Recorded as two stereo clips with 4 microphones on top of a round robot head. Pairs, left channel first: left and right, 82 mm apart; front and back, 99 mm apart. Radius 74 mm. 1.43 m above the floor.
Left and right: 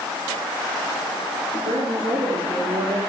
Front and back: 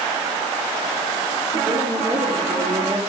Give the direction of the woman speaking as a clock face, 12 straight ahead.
4 o'clock.